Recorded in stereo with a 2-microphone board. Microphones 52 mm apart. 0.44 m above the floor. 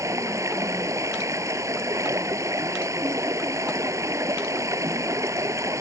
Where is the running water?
80° right.